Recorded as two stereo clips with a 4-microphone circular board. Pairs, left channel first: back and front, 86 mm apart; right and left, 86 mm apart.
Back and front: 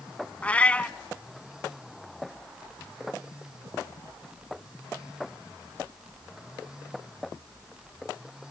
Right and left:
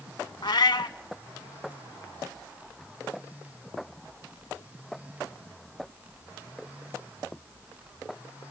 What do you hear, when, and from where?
0.4 s a cat meowing: 110° right, 0.6 m